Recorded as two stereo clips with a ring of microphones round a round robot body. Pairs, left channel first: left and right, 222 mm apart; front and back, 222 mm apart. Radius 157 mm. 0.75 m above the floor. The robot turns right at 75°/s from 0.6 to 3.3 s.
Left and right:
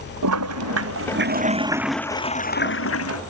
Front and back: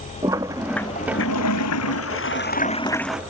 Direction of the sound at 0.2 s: 100° right.